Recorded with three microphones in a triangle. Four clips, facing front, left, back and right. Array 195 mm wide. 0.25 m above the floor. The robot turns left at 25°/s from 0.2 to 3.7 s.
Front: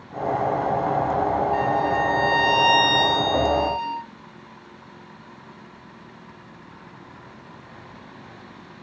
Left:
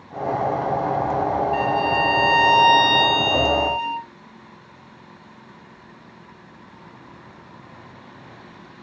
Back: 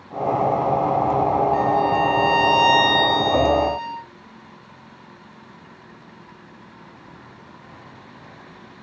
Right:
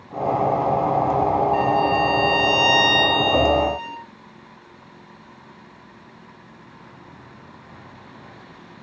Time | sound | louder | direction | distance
1.5 | a violin | right 2 dB, back 3 dB | 110° left | 4 m